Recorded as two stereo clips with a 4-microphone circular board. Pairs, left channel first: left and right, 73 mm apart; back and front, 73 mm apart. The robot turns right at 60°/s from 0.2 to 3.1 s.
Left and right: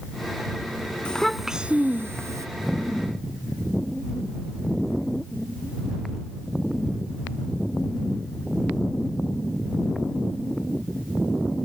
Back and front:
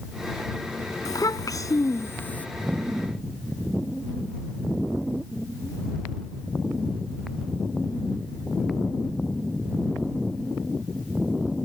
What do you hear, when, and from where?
1.1 s a child speaking: 165° left; by 2.5 s 115° right